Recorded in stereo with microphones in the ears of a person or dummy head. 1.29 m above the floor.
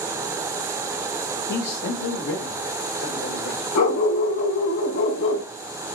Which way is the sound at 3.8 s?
70° left (ahead or behind).